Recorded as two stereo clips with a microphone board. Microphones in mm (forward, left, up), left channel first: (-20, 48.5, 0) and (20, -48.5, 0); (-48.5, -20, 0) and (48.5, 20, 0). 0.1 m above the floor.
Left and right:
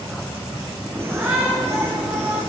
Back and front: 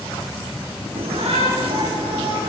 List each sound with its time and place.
0.9 s a shout: straight ahead, 4.5 m; by 2.4 s 15° right, 6 m